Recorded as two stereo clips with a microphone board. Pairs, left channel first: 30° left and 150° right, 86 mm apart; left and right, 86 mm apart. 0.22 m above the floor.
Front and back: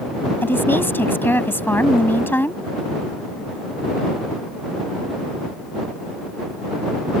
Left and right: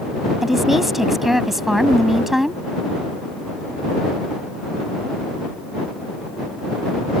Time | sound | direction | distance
0.4 | a woman speaking | 5° right | ?